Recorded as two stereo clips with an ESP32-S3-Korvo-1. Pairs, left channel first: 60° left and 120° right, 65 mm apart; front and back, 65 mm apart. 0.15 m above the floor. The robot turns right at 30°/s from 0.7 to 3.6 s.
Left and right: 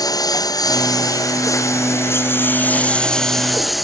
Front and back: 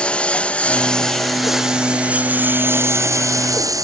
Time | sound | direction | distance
0.0 | a lawn mower | 70° left | ?